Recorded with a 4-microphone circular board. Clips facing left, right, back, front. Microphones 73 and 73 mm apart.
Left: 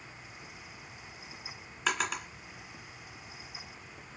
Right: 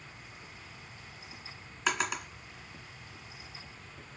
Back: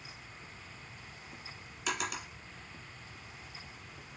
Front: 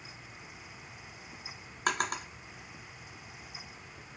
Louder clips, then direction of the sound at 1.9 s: Even, front 5 dB; straight ahead.